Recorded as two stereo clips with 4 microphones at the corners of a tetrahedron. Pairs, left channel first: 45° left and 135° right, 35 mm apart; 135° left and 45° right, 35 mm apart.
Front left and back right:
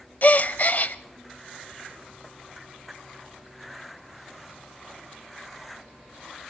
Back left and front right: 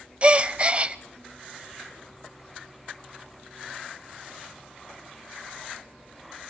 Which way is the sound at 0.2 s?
10° left.